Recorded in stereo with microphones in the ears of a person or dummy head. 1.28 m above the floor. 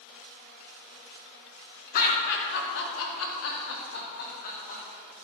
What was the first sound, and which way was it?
Laughter, 50° left (ahead or behind).